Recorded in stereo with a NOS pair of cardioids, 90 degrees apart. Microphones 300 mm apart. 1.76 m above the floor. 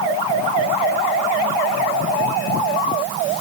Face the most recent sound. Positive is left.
No sound to turn to.